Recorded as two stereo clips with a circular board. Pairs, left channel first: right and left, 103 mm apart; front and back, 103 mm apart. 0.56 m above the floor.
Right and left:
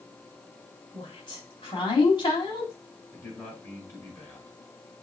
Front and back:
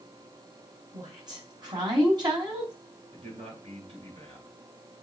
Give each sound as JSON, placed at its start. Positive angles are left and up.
{"t": 0.9, "sound": "a woman speaking", "azimuth_deg": -135, "distance_m": 3.5}
{"t": 3.1, "sound": "a man speaking", "azimuth_deg": -150, "distance_m": 5.0}